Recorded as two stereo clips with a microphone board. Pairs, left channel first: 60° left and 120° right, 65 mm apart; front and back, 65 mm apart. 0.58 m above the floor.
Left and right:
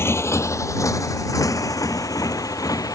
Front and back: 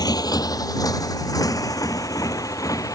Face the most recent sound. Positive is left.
turn(degrees=30)